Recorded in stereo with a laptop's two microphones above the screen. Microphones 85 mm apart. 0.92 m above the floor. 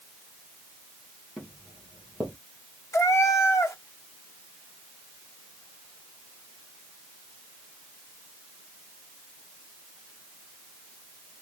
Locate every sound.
1.4 s footsteps: 5° right (ahead or behind), 1.5 m
2.9 s a cat meowing: 40° left (ahead or behind), 0.7 m